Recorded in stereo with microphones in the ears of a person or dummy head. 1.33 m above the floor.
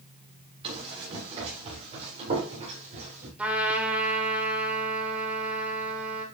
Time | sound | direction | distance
0.6 | running footsteps | 30° right (ahead or behind) | 7 m
3.4 | a trumpet | 10° right (ahead or behind) | 2.5 m